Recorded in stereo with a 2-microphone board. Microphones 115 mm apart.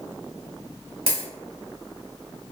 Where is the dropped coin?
60° right (ahead or behind), 1.7 m.